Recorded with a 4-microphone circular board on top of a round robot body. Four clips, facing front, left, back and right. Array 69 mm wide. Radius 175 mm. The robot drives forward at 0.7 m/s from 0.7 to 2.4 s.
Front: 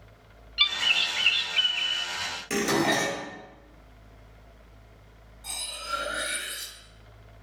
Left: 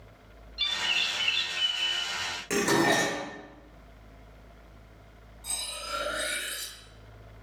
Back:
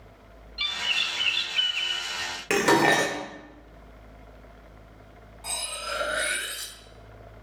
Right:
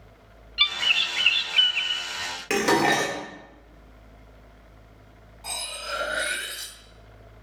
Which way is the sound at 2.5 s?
160° right.